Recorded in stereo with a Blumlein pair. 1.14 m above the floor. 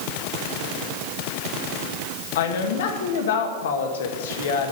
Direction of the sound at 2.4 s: 60° left.